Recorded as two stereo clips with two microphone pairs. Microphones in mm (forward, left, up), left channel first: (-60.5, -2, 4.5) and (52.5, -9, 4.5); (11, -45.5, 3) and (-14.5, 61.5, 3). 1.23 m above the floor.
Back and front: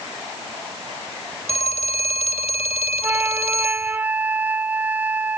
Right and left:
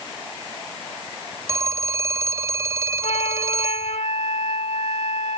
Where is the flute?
80° right.